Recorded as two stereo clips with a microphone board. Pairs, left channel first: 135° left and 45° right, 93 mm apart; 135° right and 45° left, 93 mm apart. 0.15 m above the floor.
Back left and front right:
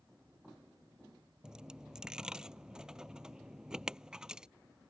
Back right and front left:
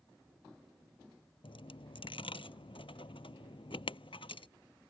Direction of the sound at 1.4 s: 125° right.